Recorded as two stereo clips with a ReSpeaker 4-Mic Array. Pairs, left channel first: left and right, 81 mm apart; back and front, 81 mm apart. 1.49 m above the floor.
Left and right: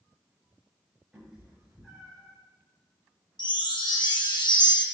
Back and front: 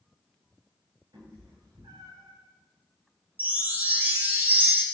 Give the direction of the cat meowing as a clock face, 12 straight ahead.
12 o'clock.